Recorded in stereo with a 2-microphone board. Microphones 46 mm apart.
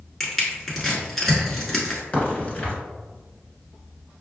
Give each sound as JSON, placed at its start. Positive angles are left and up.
{"t": 0.2, "sound": "crushing", "side_deg": 5, "distance_m": 1.3}
{"t": 2.1, "sound": "a crack", "side_deg": 25, "distance_m": 1.6}